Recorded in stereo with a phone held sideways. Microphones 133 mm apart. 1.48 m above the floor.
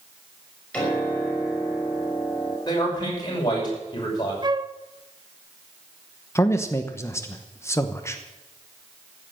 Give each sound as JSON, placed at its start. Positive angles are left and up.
{"t": 0.7, "sound": "a piano", "side_deg": 10, "distance_m": 5.5}
{"t": 2.7, "sound": "a man speaking", "side_deg": 35, "distance_m": 6.0}
{"t": 4.4, "sound": "a flute", "side_deg": -35, "distance_m": 0.6}
{"t": 6.3, "sound": "a man speaking", "side_deg": 20, "distance_m": 0.9}